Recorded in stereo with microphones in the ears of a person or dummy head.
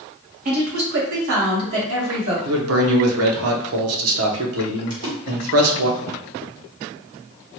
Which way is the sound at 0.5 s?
50° right (ahead or behind).